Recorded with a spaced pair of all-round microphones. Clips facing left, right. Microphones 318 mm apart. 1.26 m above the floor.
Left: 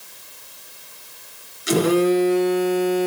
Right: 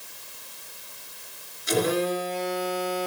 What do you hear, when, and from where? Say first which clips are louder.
1.7 s a phone buzzing: left 8 dB; 85° left, 2.5 m